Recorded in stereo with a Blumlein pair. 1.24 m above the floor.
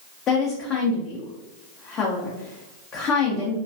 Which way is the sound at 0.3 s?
25° left.